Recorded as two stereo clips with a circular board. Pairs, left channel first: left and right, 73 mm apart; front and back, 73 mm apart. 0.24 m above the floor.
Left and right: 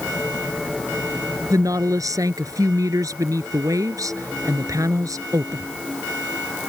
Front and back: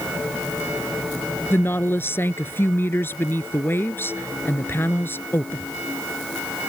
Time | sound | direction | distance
1.5 | a woman speaking | 55° right | ?